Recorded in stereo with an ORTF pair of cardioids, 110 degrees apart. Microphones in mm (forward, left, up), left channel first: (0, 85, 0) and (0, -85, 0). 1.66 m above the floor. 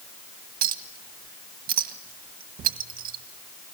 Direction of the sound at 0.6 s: 65° right.